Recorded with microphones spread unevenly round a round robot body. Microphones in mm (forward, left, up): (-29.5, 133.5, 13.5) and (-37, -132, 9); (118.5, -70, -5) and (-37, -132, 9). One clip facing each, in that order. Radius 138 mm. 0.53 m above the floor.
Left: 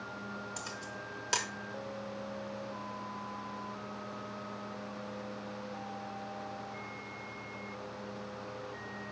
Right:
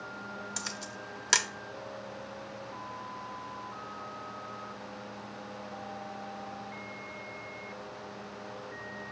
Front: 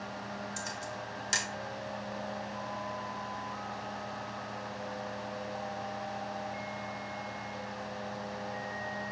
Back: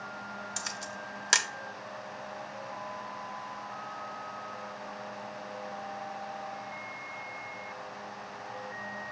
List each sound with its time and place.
0.6 s a camera shutter: 145° right, 0.9 m